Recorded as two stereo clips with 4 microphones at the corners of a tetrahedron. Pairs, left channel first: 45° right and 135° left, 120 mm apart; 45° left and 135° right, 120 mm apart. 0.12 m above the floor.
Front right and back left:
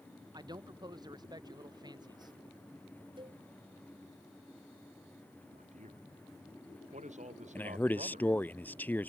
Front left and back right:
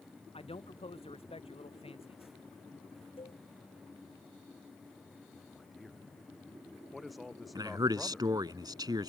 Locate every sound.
0.3 s a man speaking: 80° left
3.2 s a cowbell: 85° left
5.4 s a man speaking: 135° left
7.5 s a man speaking: 110° right